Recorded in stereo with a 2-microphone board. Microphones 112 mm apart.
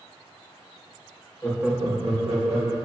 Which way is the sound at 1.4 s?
20° left (ahead or behind).